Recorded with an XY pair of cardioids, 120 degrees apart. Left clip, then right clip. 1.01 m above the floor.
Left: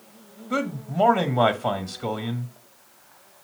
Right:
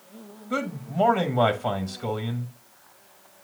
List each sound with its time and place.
0.5 s a man speaking: straight ahead, 1.5 m